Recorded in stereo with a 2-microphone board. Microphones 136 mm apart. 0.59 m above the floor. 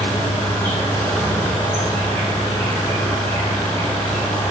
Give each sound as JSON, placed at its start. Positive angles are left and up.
{"t": 0.0, "sound": "an insect", "side_deg": 15, "distance_m": 6.5}